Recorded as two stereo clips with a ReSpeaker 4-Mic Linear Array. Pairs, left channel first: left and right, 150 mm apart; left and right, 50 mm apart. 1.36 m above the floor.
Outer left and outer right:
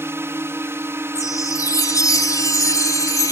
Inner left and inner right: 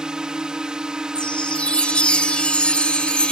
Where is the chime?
25° left (ahead or behind).